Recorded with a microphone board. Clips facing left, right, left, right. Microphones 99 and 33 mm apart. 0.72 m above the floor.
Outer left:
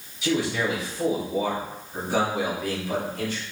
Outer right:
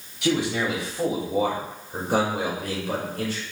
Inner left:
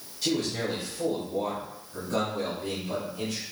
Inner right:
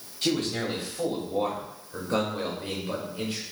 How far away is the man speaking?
About 1.4 m.